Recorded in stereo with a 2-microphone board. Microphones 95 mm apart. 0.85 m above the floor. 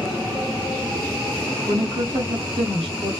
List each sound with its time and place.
1.7 s a woman speaking: 70° right (ahead or behind), 1.9 m